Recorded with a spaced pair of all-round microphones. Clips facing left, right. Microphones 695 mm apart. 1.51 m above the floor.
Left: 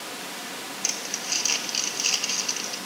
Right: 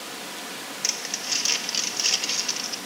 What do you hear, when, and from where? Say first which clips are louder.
0.8 s crumpling: left 1 dB; 45° right (ahead or behind), 1.6 m